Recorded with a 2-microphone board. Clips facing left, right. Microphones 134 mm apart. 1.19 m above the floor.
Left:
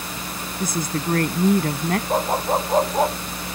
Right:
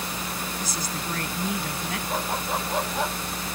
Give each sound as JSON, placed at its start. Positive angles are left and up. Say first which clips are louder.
{"t": 0.6, "sound": "a woman speaking", "louder": "left 7 dB", "side_deg": 50}
{"t": 2.1, "sound": "a dog barking", "louder": "left 7 dB", "side_deg": 40}